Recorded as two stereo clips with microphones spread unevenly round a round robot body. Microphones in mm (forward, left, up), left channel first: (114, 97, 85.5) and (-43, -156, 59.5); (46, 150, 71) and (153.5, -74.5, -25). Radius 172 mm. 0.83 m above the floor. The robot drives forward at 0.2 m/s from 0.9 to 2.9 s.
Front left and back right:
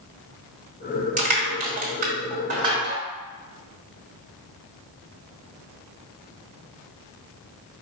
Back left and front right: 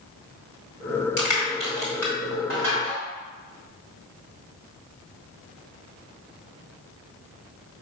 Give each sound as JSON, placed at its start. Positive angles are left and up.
{"t": 1.2, "sound": "crushing", "azimuth_deg": 175, "distance_m": 1.2}